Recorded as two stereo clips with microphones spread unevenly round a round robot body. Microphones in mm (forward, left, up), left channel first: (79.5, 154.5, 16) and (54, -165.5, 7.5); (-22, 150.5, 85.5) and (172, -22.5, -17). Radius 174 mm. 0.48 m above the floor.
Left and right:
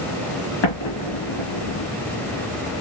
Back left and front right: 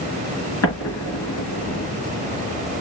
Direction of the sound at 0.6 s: 110° left.